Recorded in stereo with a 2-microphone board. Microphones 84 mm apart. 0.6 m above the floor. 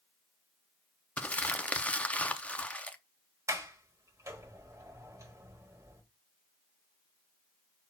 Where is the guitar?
No guitar in this recording.